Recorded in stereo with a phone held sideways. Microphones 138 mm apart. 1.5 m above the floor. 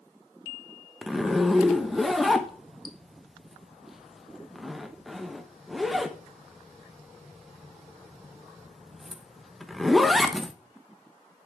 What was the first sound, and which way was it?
A zipper, centre (ahead or behind).